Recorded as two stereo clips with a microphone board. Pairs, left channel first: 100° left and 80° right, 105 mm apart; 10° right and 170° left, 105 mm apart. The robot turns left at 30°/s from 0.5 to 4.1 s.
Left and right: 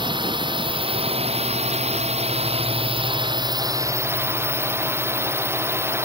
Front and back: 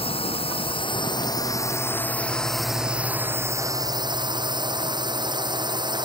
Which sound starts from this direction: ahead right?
A drone, at 0.0 s.